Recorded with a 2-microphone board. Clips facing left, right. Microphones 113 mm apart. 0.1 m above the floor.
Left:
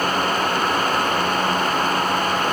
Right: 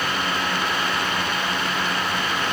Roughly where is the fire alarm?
No fire alarm in this recording.